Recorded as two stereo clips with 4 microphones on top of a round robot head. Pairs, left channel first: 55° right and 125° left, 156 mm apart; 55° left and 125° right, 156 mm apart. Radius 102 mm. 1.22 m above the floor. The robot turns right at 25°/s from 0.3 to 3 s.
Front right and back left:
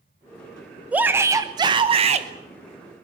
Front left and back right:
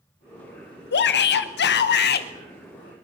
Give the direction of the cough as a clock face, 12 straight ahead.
No cough in this recording.